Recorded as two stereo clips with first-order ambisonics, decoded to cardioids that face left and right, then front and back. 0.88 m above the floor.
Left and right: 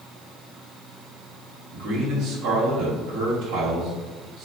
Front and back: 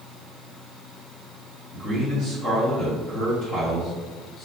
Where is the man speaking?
60° right, 1.1 m.